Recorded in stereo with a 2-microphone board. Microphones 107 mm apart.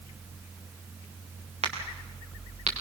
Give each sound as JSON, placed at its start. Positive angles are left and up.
{"t": 1.6, "sound": "a crack", "side_deg": -85, "distance_m": 4.0}